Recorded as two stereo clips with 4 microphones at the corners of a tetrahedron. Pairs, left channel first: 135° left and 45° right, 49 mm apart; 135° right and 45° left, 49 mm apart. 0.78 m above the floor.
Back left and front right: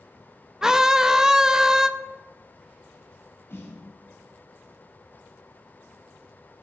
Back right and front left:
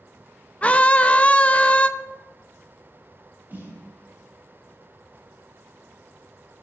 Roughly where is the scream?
Right.